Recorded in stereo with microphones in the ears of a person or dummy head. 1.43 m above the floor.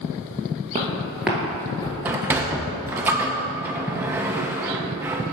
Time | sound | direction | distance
0.8 | footsteps | 25° right (ahead or behind) | 1.8 m
2.0 | a sliding door | 15° right (ahead or behind) | 0.5 m